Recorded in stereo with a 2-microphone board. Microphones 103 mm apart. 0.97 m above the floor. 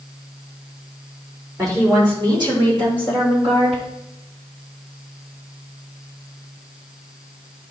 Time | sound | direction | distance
1.6 | a woman speaking | 30° right (ahead or behind) | 2.5 m